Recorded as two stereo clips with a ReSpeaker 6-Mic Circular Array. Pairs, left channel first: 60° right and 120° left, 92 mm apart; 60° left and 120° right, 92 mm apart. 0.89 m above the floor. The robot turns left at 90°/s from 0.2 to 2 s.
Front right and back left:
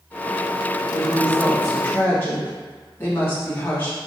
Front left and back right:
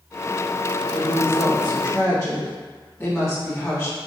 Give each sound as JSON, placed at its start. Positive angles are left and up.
{"t": 0.9, "sound": "a woman speaking", "azimuth_deg": 100, "distance_m": 1.2}